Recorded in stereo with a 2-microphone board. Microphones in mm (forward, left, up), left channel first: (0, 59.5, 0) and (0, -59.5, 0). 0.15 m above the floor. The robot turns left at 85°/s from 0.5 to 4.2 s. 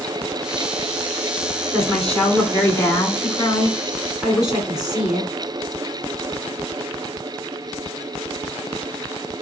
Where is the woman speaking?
10° right (ahead or behind), 1.7 m; by 5.3 s 5° right (ahead or behind), 1.7 m.